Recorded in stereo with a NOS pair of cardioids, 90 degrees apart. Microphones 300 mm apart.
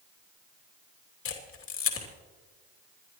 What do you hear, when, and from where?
1.2 s a camera shutter: 45° left, 2.5 m